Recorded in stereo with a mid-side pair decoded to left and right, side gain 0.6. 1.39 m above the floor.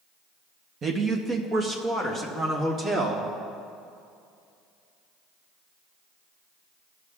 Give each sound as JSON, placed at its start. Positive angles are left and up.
{"t": 0.8, "sound": "a man speaking", "azimuth_deg": -35, "distance_m": 0.9}